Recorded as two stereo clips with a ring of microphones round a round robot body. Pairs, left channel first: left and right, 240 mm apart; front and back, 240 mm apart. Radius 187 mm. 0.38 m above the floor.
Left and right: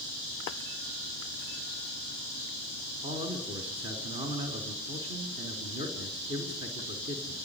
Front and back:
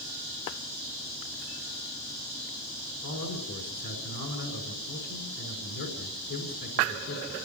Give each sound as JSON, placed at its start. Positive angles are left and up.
{"t": 3.0, "sound": "a man speaking", "azimuth_deg": -25, "distance_m": 4.5}